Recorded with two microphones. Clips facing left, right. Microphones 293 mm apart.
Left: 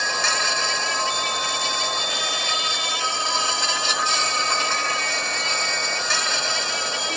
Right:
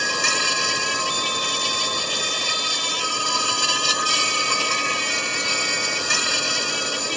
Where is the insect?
40° right (ahead or behind).